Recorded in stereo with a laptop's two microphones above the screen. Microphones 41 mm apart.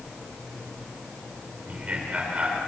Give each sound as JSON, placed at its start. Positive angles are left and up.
{"t": 1.7, "sound": "laughter", "side_deg": -35, "distance_m": 3.5}